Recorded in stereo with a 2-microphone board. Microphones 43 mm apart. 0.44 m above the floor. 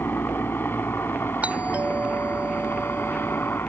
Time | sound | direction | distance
0.0 | a helicopter | 65° left (ahead or behind) | ?
1.4 | a doorbell | 40° right (ahead or behind) | ?